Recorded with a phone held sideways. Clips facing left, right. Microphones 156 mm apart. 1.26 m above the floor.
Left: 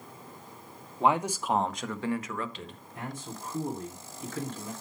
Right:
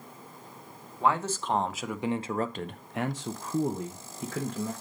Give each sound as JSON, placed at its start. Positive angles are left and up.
{"t": 1.0, "sound": "a man speaking", "side_deg": 20, "distance_m": 0.9}